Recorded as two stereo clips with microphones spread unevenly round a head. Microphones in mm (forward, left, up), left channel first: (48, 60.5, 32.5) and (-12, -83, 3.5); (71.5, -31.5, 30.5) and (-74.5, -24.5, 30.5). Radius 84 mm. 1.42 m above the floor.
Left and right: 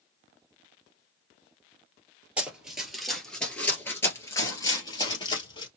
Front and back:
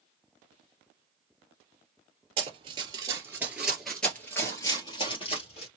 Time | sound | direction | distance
2.4 | running footsteps | 155° left | 1.7 m